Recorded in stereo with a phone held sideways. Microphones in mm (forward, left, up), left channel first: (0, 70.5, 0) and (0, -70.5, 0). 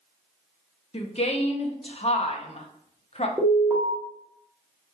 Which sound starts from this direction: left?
A woman speaking, at 0.9 s.